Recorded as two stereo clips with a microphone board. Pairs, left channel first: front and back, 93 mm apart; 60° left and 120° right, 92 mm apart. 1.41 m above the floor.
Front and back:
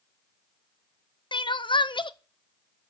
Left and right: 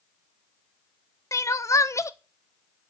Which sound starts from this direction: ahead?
Crying, at 1.3 s.